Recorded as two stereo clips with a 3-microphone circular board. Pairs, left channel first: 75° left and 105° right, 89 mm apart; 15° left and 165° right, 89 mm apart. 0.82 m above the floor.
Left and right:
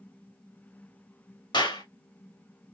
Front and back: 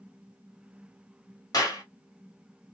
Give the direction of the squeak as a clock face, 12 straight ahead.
I don't hear a squeak.